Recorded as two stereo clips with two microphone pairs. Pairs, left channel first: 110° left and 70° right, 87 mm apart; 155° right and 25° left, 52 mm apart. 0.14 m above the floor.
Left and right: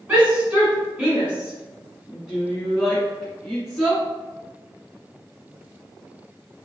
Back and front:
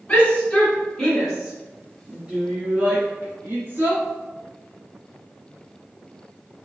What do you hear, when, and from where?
0.1 s a shout: 110° right, 1.6 m; by 4.0 s 30° left, 2 m